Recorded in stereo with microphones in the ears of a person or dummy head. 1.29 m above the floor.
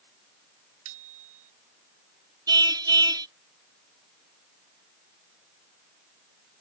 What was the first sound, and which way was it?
A bicycle bell, 80° right.